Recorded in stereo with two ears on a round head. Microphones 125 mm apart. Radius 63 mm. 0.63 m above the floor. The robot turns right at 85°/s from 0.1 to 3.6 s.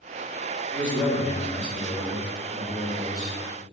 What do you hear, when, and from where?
0.7 s a man speaking: 80° left, 1.0 m; by 3.4 s 55° right, 1.0 m